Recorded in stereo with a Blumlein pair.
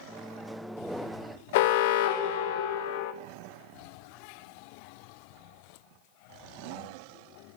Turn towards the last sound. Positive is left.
turn(degrees=50)